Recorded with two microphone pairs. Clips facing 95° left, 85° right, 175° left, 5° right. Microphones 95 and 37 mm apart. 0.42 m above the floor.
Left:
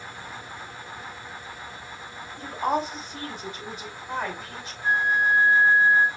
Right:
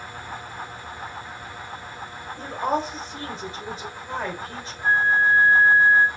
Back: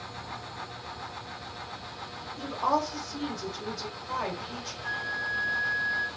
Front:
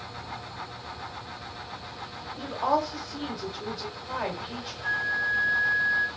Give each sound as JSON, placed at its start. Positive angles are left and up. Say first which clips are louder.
{"t": 2.4, "sound": "a woman speaking", "louder": "right 1 dB, front 1 dB", "azimuth_deg": -50, "distance_m": 1.7}
{"t": 4.8, "sound": "a flute", "louder": "right 3 dB, front 5 dB", "azimuth_deg": -30, "distance_m": 1.0}